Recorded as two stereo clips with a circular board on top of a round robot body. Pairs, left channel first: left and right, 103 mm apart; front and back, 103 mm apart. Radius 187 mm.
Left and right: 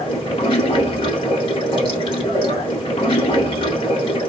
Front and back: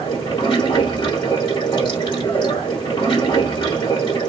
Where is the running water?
50° left, 0.9 m.